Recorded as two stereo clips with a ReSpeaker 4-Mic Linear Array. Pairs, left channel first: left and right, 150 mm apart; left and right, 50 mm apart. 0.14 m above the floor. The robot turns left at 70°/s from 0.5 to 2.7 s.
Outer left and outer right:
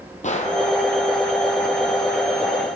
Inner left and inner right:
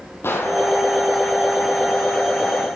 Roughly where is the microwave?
I don't hear a microwave.